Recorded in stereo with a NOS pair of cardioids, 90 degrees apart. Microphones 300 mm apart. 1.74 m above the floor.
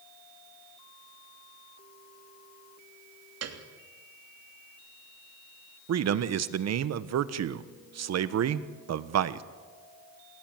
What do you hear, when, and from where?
3.4 s a piano: 55° right, 3 m
5.9 s a man speaking: 60° right, 1.3 m